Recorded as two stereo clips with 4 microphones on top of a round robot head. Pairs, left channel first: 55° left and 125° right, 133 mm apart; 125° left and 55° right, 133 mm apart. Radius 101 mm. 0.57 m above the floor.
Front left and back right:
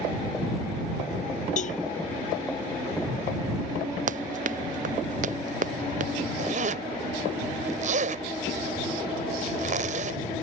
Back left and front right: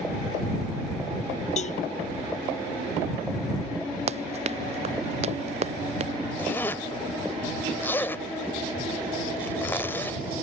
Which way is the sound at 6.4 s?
160° right.